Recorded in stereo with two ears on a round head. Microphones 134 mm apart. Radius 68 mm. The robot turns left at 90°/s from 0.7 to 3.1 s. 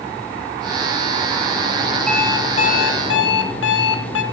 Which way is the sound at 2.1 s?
175° left.